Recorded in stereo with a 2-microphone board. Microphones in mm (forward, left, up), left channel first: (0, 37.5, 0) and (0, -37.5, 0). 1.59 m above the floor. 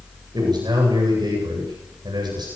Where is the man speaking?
65° right (ahead or behind), 9 m.